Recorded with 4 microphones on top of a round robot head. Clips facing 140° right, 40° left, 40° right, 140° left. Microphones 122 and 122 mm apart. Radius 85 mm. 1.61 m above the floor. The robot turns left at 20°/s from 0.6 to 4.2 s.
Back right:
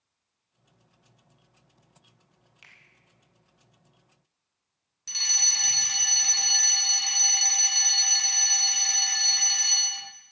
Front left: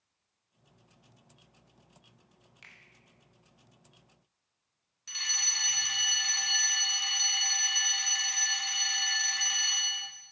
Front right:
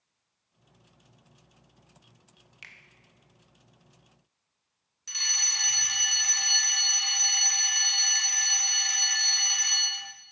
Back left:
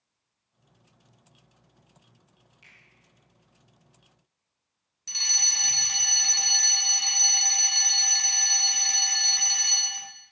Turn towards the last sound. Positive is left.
turn(degrees=-175)